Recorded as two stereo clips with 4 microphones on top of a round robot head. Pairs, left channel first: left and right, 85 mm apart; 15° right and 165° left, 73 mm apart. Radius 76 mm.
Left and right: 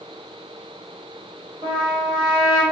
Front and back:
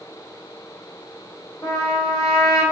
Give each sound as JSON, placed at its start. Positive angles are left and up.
{"t": 1.6, "sound": "a trumpet", "azimuth_deg": -45, "distance_m": 1.4}